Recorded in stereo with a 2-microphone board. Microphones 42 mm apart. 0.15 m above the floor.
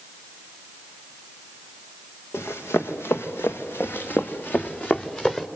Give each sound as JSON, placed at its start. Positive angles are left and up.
{"t": 2.3, "sound": "running footsteps", "side_deg": 85, "distance_m": 1.9}